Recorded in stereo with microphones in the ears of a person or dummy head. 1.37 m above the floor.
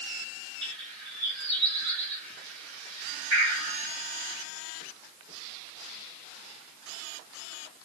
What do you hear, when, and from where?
0.6 s a bird: 60° right (ahead or behind), 2.5 m